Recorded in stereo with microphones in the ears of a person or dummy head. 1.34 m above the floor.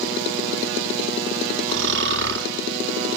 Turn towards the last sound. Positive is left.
turn(degrees=-70)  # may be behind; listen again after turning